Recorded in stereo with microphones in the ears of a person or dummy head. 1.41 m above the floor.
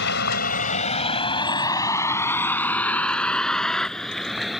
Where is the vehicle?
75° left (ahead or behind); by 4.6 s centre (ahead or behind).